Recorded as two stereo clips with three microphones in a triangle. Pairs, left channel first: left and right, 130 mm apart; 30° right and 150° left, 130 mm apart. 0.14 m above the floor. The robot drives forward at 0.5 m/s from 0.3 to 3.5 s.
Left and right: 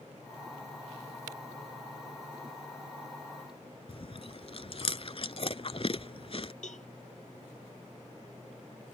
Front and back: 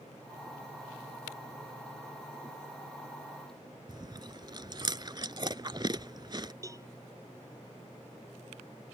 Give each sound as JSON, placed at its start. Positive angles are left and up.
{"t": 3.9, "sound": "chewing", "azimuth_deg": 110}
{"t": 6.6, "sound": "a cowbell", "azimuth_deg": 90}